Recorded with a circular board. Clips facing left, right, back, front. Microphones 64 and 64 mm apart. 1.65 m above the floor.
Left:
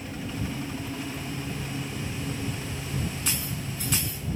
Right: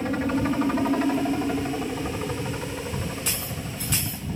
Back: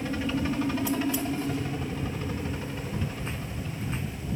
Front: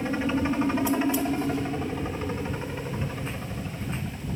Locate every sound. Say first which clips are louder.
0.0 s a helicopter: right 10 dB, front 3 dB; 60° right